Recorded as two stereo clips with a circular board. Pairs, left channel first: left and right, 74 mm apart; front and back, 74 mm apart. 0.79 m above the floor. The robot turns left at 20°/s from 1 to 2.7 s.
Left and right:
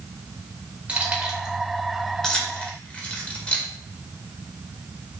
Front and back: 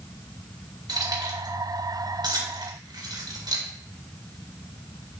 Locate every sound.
0.9 s keys jangling: 165° right, 1.9 m; by 3.7 s 165° left, 1.9 m